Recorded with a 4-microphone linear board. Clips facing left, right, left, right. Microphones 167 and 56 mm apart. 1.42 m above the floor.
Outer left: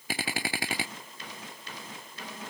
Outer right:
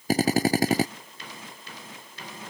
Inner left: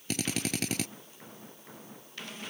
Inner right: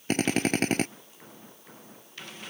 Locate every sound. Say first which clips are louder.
0.1 s a drill: outer right 13 dB, inner right 8 dB; 40° right (ahead or behind)